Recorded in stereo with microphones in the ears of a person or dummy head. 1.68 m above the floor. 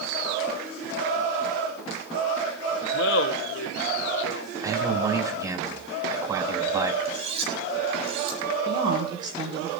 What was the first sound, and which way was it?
Laughter, 70° left (ahead or behind).